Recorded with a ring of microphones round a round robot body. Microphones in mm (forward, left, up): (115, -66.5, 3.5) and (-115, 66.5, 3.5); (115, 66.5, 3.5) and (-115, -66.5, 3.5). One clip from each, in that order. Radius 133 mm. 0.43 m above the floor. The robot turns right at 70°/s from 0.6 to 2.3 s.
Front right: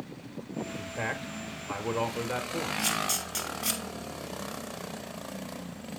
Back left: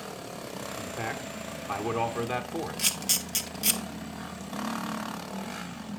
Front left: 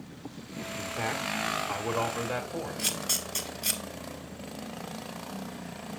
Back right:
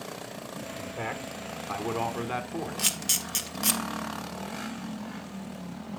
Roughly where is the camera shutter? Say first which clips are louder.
Back left 2 dB, back right 3 dB; behind right.